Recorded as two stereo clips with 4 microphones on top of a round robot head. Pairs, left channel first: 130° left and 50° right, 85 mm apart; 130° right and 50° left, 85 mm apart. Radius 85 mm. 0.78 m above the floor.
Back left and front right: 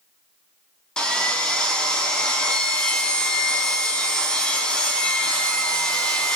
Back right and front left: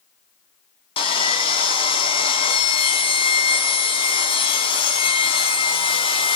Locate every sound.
1.0 s sawing: 145° right, 4.5 m